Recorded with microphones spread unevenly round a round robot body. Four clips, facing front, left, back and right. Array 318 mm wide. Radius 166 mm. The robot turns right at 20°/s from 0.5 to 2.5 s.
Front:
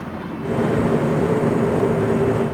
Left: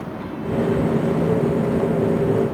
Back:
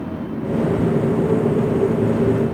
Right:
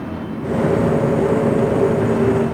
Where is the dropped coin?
No dropped coin in this recording.